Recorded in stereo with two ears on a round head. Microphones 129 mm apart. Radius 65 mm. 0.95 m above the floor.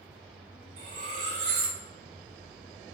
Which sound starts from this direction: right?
Cutlery clinking, at 0.8 s.